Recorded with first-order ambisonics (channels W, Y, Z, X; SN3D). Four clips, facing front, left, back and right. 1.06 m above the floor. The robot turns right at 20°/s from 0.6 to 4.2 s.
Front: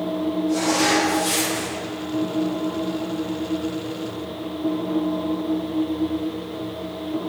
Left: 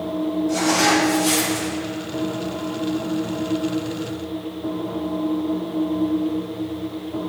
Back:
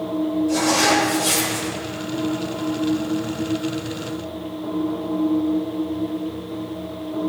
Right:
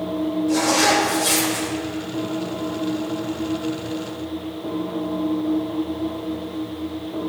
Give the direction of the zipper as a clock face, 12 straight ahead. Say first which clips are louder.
Right 1 dB, back 1 dB; 4 o'clock.